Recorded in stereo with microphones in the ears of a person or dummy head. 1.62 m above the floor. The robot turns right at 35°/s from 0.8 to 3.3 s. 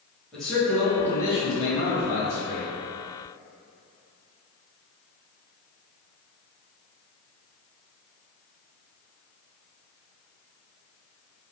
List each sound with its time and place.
0.3 s a man speaking: straight ahead, 1.6 m; by 2.7 s 65° left, 1.6 m